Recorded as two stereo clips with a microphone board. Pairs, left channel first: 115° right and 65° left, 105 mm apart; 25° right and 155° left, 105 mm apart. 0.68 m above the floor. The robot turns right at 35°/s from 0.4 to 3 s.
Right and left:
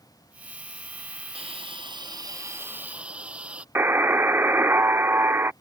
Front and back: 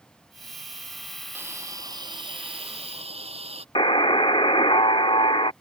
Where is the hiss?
90° left; by 3.6 s 145° left.